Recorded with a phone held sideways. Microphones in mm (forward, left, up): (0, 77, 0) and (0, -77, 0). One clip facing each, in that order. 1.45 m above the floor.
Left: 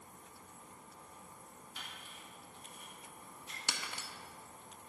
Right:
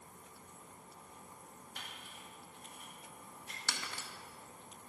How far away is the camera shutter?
About 2 m.